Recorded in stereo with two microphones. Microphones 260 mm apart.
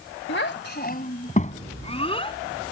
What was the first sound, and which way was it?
A child speaking, 45° left (ahead or behind).